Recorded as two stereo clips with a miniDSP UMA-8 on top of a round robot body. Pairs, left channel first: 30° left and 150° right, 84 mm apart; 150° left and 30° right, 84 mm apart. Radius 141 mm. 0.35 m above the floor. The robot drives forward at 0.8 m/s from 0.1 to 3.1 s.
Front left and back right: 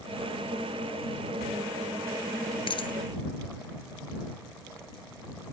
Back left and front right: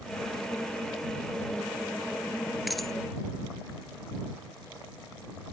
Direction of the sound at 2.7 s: 60° left.